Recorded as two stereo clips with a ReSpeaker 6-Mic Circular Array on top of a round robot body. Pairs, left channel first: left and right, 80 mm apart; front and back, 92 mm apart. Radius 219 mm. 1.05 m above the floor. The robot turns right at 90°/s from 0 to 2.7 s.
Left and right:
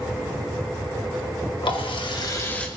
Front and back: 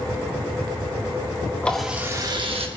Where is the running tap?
75° left, 2 m; by 2.7 s 170° left, 2 m.